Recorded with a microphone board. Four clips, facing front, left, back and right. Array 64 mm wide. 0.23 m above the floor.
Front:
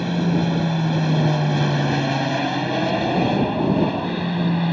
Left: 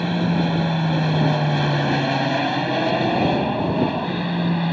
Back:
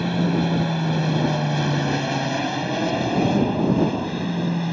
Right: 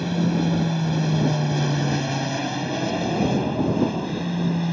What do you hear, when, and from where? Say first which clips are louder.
0.0 s an aircraft: left 2 dB, front 1 dB; 95° left; by 4.7 s 60° left